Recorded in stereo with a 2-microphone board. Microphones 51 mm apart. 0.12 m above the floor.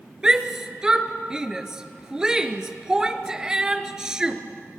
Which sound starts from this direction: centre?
A shout, at 0.2 s.